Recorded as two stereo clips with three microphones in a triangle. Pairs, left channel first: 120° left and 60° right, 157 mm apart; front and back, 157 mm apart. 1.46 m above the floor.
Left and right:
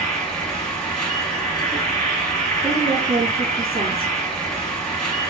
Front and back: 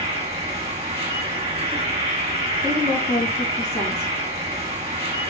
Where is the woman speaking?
45° right, 1.7 m.